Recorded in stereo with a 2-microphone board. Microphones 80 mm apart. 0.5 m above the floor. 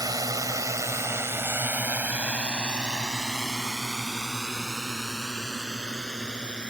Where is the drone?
60° right (ahead or behind); by 6.7 s 10° left (ahead or behind).